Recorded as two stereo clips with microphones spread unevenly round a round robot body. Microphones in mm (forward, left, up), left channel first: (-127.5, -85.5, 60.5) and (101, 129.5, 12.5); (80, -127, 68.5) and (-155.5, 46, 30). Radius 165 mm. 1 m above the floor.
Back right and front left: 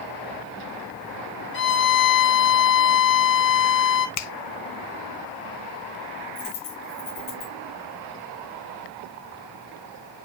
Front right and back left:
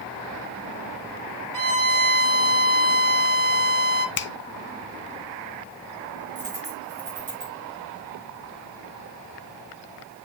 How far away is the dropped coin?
About 6.5 m.